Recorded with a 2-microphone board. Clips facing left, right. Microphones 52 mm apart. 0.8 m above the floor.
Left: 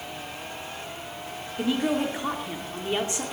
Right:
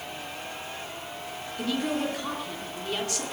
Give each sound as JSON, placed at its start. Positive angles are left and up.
{"t": 1.6, "sound": "a woman speaking", "side_deg": 20, "distance_m": 2.0}